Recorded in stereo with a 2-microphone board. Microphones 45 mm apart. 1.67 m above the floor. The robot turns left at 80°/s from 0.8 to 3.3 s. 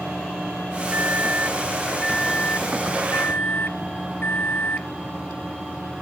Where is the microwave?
95° right; by 4.9 s 75° left.